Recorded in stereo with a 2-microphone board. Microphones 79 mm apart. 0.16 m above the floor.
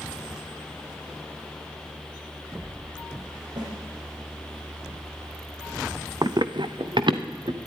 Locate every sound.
3.6 s a snare drum: 65° right (ahead or behind), 8.5 m
6.2 s running footsteps: 55° right (ahead or behind), 0.5 m; by 7.6 s 80° right, 2.0 m